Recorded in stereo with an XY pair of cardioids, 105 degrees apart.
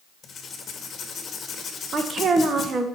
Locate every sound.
0.2 s writing: 45° left, 2 m
1.9 s a woman speaking: 45° right, 1.5 m